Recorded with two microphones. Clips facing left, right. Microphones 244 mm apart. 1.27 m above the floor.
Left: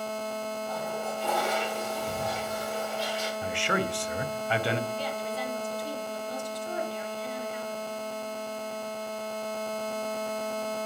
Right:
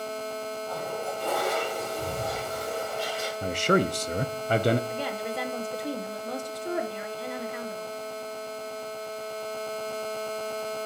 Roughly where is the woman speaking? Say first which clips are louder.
Right 2 dB; right.